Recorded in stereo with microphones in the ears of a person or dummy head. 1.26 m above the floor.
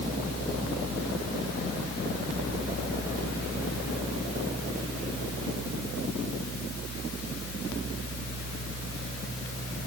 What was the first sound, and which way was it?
Only background noise.